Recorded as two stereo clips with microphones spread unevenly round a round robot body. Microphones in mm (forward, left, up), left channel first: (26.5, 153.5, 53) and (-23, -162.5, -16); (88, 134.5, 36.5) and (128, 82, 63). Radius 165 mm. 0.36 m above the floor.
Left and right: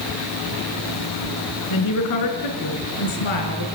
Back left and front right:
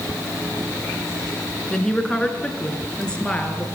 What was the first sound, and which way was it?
A woman speaking, 50° left.